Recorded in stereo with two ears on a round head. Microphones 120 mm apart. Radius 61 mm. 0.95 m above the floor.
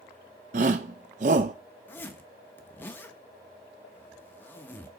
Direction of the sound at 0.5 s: 55° right (ahead or behind).